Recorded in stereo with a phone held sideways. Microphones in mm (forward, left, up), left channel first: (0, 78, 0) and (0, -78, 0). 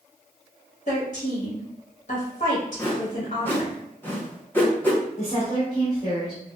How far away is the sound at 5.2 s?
About 1.6 m.